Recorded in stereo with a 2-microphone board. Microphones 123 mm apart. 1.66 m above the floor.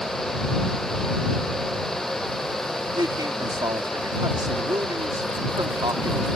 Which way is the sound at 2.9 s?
35° right (ahead or behind).